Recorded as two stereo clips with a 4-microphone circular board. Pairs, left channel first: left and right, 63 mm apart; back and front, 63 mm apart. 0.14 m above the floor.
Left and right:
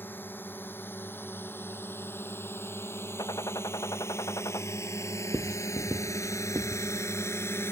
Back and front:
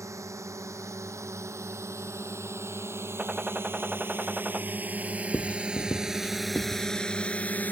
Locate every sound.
0.0 s a drone: 35° left; by 7.7 s 125° left
3.2 s a gunshot: 70° left
5.3 s writing: 125° right